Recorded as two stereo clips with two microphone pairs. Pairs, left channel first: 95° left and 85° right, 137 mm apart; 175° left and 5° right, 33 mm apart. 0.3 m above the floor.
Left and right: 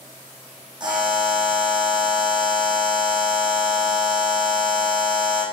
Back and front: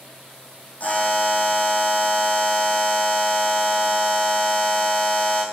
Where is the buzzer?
145° right, 5.5 m.